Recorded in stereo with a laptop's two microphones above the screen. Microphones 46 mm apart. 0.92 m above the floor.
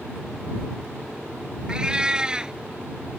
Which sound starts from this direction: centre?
A cat meowing, at 1.7 s.